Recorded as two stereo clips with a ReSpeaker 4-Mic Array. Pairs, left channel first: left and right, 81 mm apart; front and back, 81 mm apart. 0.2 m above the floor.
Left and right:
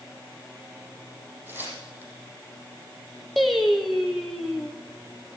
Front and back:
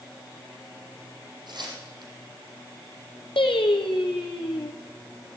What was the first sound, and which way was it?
Tearing paper, 155° right.